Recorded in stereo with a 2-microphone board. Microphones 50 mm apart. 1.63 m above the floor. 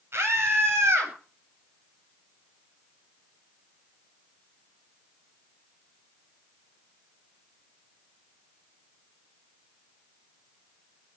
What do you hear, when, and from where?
0.1 s a scream: 55° right (ahead or behind), 10 m